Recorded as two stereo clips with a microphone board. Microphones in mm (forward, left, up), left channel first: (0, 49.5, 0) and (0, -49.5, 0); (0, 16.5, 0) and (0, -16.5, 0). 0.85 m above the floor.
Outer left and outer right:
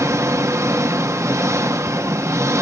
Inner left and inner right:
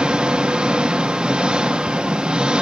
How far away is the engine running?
About 0.9 m.